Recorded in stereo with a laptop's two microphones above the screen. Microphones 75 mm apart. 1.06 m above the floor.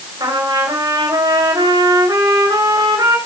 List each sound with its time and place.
0.2 s a trumpet: 60° right (ahead or behind), 7.5 m